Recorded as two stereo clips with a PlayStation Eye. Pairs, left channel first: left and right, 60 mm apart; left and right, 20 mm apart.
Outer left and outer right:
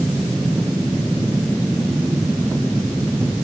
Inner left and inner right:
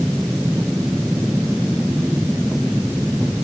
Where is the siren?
No siren in this recording.